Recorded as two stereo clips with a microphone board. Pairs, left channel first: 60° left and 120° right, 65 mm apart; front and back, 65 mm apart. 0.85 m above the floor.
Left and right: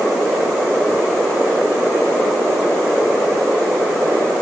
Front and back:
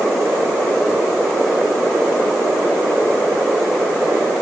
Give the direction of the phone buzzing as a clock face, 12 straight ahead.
I don't hear a phone buzzing.